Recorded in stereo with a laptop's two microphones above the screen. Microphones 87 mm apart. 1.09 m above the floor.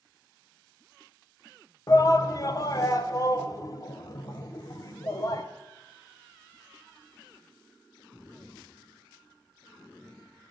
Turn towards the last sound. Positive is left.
turn(degrees=40)  # may be behind; listen again after turning